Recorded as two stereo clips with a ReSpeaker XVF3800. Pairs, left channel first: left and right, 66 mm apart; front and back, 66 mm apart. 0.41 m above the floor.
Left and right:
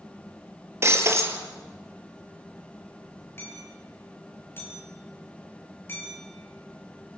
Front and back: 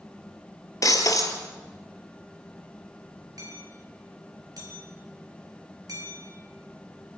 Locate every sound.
0.8 s breaking glass: 40° right, 2.5 m
3.4 s hammering: 150° left, 6.5 m